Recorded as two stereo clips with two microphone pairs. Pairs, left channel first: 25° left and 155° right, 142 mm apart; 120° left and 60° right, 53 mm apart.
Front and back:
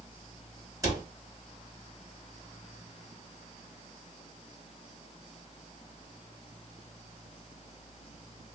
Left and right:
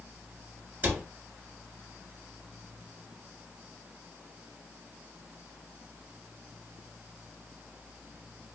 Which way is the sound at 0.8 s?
105° right.